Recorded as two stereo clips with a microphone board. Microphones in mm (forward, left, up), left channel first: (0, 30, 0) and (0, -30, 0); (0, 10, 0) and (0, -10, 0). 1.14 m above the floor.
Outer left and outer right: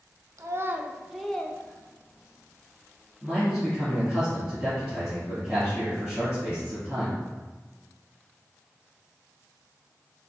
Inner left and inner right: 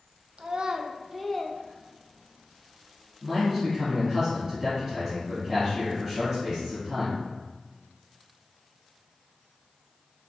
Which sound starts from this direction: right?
A child speaking, at 0.4 s.